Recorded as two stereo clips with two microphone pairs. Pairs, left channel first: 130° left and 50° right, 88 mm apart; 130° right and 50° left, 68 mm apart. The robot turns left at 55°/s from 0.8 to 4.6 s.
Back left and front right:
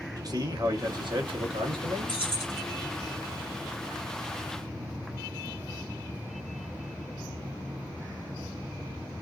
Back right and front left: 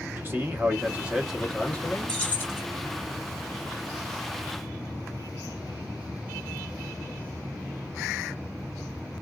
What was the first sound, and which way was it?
A man speaking, 5° right.